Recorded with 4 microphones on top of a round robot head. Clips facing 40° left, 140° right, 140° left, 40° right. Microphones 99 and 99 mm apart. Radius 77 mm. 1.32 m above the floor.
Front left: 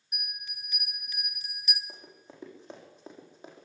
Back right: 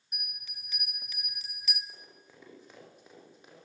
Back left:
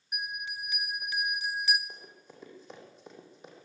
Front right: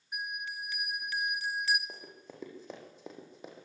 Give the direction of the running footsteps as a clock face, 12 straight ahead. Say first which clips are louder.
Front left 5 dB, front right 2 dB; 1 o'clock.